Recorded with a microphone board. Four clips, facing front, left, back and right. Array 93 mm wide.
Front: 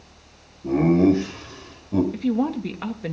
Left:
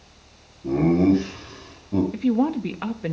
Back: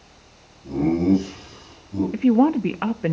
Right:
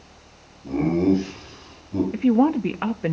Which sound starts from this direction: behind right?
A woman speaking, at 2.1 s.